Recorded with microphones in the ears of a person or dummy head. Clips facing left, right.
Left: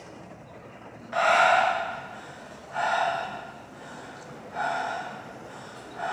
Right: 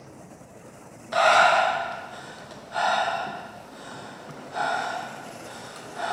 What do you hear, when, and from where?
1.1 s breathing: 55° right (ahead or behind), 0.5 m